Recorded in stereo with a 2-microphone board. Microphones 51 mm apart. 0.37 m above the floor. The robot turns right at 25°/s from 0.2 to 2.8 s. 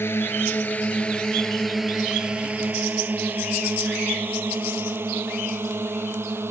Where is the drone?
55° left (ahead or behind); by 6.5 s 55° right (ahead or behind).